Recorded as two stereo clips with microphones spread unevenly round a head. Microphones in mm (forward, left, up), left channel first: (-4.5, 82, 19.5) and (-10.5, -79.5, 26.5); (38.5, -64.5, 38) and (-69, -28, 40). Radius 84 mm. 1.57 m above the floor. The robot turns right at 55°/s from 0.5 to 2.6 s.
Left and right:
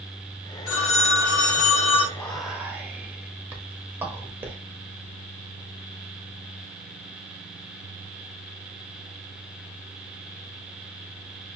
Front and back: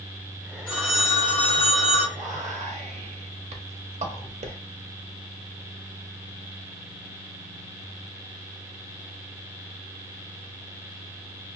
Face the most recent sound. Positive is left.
turn(degrees=-170)